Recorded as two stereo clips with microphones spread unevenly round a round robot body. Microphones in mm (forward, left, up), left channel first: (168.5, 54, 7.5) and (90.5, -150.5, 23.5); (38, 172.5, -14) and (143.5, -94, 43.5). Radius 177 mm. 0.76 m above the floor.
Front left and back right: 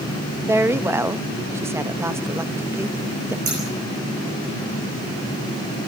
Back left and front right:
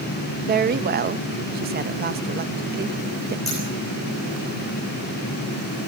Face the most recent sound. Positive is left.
turn(degrees=-160)